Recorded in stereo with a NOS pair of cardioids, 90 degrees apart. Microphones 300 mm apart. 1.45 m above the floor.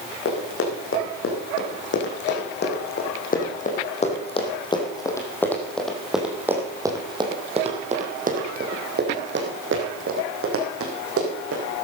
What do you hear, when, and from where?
0.2 s running footsteps: 50° left, 6.5 m; by 11.8 s 55° right, 6 m